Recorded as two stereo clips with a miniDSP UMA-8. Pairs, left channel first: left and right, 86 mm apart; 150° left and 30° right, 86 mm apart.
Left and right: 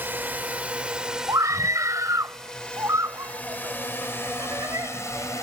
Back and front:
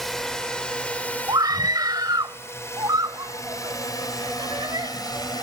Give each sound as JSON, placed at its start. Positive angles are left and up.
{"t": 0.0, "sound": "a drone", "azimuth_deg": -130}
{"t": 1.3, "sound": "a scream", "azimuth_deg": -50}